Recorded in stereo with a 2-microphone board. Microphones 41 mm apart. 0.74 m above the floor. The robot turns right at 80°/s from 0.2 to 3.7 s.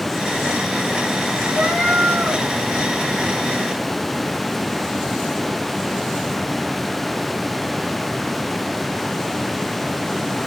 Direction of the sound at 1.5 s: 120° right.